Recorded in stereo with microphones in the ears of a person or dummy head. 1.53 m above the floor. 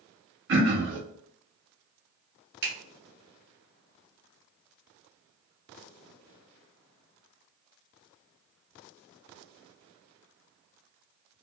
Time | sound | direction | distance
0.5 | throat clearing | 60° right (ahead or behind) | 1.2 m
2.6 | a finger snap | 65° right (ahead or behind) | 1.8 m